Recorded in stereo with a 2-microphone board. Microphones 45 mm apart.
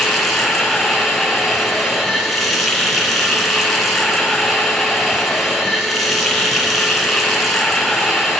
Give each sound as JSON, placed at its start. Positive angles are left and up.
{"t": 0.0, "sound": "running water", "side_deg": 0, "distance_m": 3.5}